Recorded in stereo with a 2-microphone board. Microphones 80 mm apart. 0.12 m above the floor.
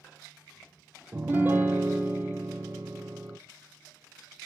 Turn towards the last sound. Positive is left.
turn(degrees=-25)  # may be behind; listen again after turning